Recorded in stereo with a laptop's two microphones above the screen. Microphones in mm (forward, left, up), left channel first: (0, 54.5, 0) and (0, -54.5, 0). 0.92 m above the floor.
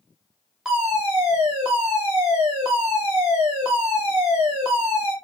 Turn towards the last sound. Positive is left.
turn(degrees=-10)  # may be behind; listen again after turning